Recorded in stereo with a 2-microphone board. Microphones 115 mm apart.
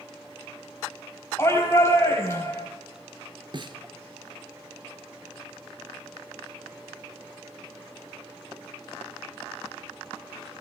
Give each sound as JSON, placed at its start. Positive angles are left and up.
{"t": 1.4, "sound": "a shout", "side_deg": 20, "distance_m": 3.5}
{"t": 3.5, "sound": "a snare drum", "side_deg": -45, "distance_m": 0.8}